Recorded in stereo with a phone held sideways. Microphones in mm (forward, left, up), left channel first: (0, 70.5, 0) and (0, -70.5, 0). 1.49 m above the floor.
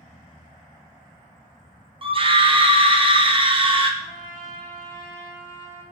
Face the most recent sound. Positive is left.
turn(degrees=-20)  # may be behind; listen again after turning